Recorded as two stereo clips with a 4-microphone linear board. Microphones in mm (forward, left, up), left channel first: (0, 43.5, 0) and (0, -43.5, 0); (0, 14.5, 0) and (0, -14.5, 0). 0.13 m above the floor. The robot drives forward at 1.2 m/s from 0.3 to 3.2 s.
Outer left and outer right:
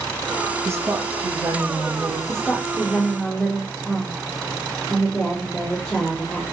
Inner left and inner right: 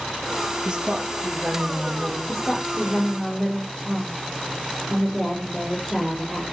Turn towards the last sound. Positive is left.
turn(degrees=10)  # may be behind; listen again after turning